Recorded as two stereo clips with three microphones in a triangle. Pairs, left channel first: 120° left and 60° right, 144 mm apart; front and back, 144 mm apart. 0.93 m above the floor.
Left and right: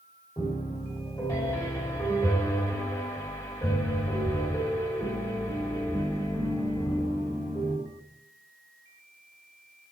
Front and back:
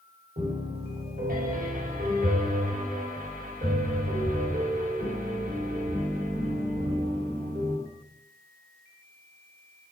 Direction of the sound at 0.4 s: 175° right.